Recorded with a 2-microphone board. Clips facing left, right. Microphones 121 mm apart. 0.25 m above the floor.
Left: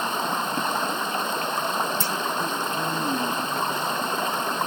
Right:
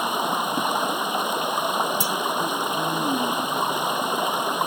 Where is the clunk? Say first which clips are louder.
Right 2 dB; 15° right (ahead or behind).